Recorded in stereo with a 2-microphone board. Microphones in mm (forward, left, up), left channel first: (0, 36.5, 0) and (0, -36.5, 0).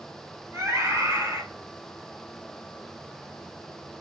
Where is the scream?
40° right (ahead or behind), 2 m.